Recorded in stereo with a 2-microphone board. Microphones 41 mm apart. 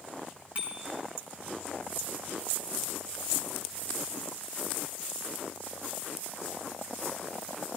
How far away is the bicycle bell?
About 5 m.